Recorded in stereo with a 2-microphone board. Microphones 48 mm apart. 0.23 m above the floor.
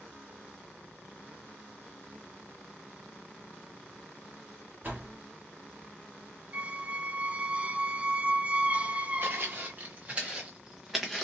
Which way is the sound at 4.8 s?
35° right (ahead or behind).